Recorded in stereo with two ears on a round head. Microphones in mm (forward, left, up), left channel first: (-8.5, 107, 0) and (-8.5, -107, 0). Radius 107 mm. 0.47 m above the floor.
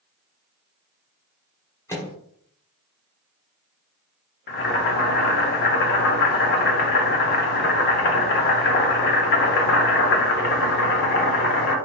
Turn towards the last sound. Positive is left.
turn(degrees=45)  # may be behind; listen again after turning